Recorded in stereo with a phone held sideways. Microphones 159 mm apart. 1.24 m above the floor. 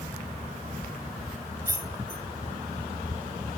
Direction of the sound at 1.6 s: 15° right (ahead or behind).